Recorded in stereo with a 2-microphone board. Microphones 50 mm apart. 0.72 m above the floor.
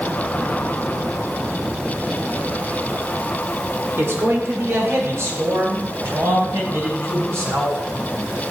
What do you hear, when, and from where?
4.0 s a man speaking: 65° right (ahead or behind), 2 m; by 7.8 s 75° right (ahead or behind), 5.5 m